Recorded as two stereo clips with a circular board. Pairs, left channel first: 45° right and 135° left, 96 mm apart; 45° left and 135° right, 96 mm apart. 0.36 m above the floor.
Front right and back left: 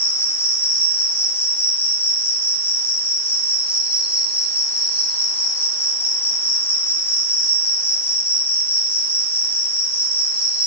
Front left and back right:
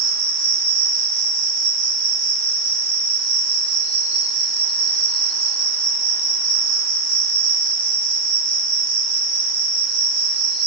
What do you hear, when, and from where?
0.0 s an insect: 35° right, 7.5 m